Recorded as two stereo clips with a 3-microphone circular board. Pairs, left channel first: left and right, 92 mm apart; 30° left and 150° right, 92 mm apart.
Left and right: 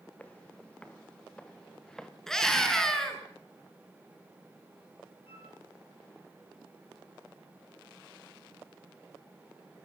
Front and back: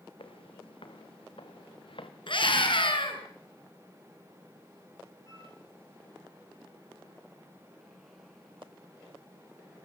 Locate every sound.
0.2 s footsteps: 15° left, 3.5 m; by 2.1 s 5° left, 2.5 m
2.3 s a scream: 5° left, 6.5 m
5.2 s a flute: 85° left, 7.5 m